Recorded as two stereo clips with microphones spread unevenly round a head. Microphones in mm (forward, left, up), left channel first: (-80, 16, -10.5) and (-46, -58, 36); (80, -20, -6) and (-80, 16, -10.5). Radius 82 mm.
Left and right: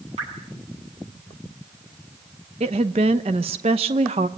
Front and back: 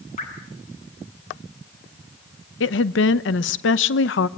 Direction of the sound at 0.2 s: 60° right.